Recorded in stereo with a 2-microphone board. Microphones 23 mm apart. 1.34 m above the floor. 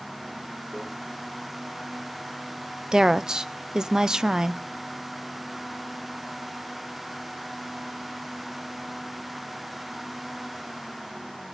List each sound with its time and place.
0.7 s a microwave: 80° right, 4 m
2.9 s a woman speaking: 30° right (ahead or behind), 0.5 m